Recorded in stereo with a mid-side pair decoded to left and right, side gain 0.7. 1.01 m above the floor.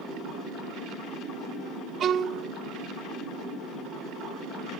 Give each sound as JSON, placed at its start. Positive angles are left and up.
{"t": 2.0, "sound": "a violin", "azimuth_deg": -35, "distance_m": 1.0}